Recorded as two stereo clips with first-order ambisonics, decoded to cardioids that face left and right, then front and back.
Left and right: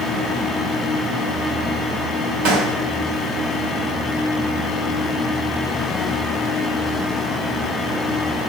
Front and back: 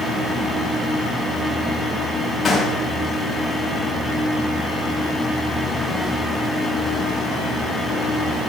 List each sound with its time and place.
2.5 s a gunshot: 75° right, 3.5 m